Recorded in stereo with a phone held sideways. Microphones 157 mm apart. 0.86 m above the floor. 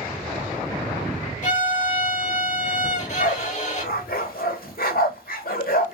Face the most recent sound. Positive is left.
turn(degrees=70)  # may be behind; listen again after turning